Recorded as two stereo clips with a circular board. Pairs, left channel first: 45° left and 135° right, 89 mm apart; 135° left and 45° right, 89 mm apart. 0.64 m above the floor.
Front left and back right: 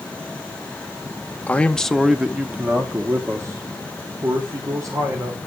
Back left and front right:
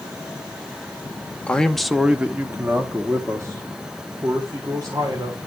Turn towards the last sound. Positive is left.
turn(degrees=-90)